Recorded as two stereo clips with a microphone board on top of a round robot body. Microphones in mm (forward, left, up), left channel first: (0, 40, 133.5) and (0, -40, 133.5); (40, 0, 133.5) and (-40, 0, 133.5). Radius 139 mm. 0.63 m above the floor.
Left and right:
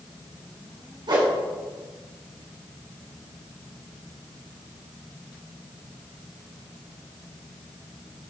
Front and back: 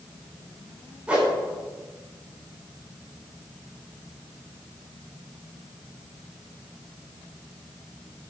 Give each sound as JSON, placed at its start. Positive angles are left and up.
{"t": 1.1, "sound": "a whoosh", "azimuth_deg": -105, "distance_m": 3.5}